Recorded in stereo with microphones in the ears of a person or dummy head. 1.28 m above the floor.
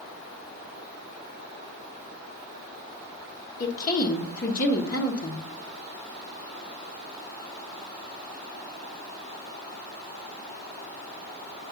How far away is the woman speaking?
About 1.2 m.